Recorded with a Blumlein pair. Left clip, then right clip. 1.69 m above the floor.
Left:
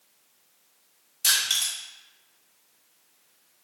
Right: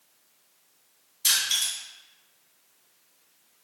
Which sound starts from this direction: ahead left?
Crushing, at 1.2 s.